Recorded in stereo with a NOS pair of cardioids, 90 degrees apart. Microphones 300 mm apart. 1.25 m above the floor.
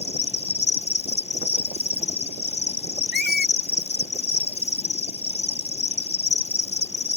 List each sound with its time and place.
0.0 s an insect: 20° left
3.1 s a squeak: 35° left